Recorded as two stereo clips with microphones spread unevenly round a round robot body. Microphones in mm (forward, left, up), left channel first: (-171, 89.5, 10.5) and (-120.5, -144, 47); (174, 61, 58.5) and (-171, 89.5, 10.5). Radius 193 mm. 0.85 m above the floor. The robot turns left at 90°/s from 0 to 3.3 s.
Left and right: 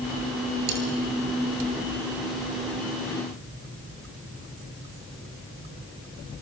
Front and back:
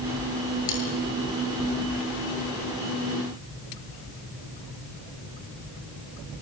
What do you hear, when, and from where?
0.7 s cutlery clinking: 65° right, 9 m; by 0.8 s 75° right, 9 m